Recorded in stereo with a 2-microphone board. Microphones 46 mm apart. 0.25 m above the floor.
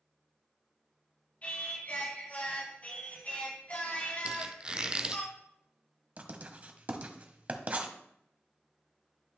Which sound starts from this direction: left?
Singing, at 1.4 s.